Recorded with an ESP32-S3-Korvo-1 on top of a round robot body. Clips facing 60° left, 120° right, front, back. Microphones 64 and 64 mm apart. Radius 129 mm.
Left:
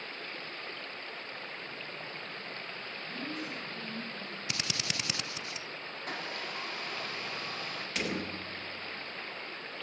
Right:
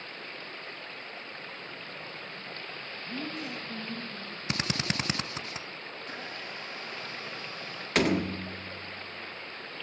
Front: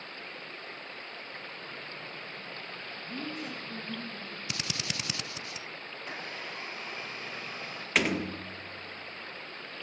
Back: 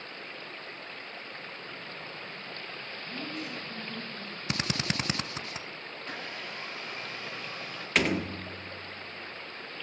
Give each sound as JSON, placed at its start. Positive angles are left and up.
{"t": 3.1, "sound": "a woman speaking", "azimuth_deg": -55, "distance_m": 9.0}
{"t": 4.5, "sound": "a drill", "azimuth_deg": -150, "distance_m": 1.0}
{"t": 6.0, "sound": "a blender", "azimuth_deg": 75, "distance_m": 9.5}
{"t": 8.0, "sound": "a door slam", "azimuth_deg": -90, "distance_m": 1.7}